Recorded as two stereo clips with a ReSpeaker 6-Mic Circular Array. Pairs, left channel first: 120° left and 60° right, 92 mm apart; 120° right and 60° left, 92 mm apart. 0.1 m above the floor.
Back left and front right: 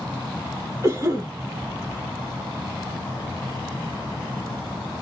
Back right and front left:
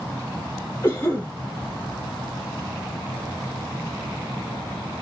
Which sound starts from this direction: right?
A cough, at 0.8 s.